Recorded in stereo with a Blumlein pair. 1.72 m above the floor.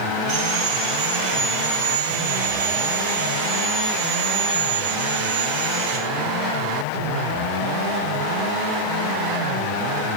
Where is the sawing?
40° right, 1.5 m.